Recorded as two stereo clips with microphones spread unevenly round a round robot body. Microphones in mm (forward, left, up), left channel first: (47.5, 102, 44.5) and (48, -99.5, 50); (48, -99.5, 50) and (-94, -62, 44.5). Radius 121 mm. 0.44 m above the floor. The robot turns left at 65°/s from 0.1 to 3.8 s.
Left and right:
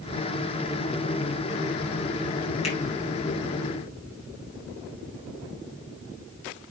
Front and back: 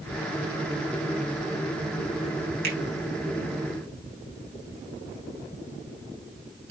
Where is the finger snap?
155° left, 4 m; by 2.8 s 145° left, 4 m.